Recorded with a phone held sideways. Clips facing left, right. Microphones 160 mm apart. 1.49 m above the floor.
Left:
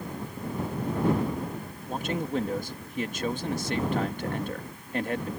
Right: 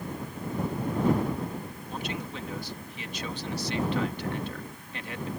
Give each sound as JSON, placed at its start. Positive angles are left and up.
{"t": 1.9, "sound": "a man speaking", "side_deg": 50}